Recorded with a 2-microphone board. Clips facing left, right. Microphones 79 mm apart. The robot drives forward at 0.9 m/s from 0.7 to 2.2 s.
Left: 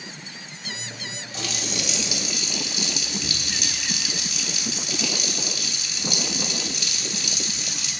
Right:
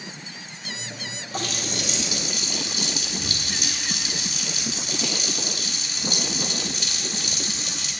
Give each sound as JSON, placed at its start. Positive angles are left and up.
{"t": 1.3, "sound": "a running tap", "side_deg": -40, "distance_m": 3.0}